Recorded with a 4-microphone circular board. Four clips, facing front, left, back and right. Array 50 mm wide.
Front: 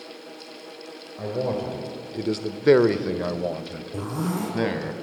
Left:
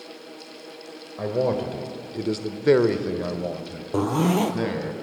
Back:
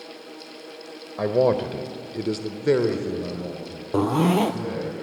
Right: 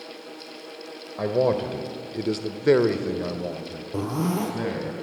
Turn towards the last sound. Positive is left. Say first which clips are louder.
# left 5 dB, back 9 dB
turn(degrees=160)